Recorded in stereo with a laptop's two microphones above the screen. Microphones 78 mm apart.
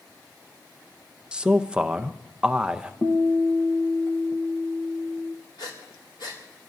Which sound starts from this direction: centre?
A man speaking, at 1.3 s.